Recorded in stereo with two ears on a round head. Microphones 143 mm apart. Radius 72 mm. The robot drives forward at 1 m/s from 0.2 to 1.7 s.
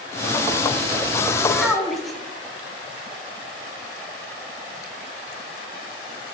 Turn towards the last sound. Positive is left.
turn(degrees=0)  # may be behind; listen again after turning